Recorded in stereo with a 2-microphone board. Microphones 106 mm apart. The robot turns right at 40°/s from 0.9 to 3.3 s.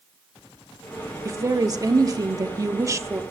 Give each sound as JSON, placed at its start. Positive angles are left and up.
{"t": 1.2, "sound": "a woman speaking", "azimuth_deg": -125, "distance_m": 0.9}